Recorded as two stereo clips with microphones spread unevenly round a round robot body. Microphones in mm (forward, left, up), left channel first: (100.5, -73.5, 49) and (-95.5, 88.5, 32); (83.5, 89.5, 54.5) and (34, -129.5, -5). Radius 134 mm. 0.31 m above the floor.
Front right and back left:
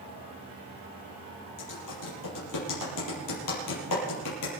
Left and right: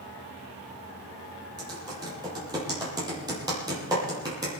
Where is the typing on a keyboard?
30° right, 7.5 m.